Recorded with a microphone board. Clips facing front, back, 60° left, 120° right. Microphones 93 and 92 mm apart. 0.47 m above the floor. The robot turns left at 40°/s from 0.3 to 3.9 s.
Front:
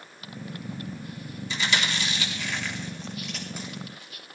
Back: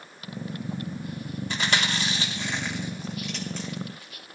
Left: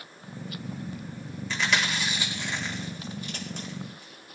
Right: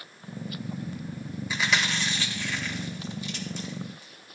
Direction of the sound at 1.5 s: 160° left.